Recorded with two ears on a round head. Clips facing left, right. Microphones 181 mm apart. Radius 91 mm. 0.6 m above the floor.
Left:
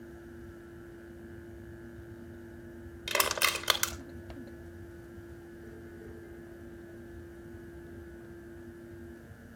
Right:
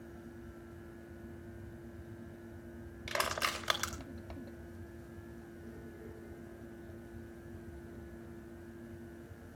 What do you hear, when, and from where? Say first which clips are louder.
3.1 s crushing: left 4 dB; 60° left (ahead or behind), 2.5 m